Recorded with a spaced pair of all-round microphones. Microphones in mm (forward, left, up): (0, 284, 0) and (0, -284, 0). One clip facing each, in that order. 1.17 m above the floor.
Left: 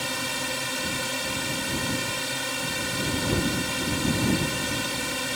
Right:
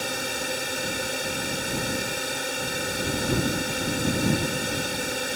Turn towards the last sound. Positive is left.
turn(degrees=25)  # may be behind; listen again after turning